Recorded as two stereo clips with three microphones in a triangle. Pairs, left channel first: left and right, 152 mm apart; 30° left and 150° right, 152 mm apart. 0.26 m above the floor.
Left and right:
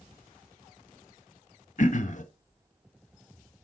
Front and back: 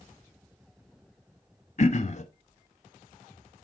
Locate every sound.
1.8 s throat clearing: 65° left, 0.5 m